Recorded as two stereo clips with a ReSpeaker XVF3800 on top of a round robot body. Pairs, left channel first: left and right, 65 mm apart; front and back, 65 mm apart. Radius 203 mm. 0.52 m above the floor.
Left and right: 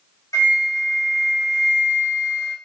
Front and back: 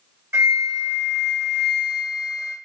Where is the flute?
130° left, 2 m.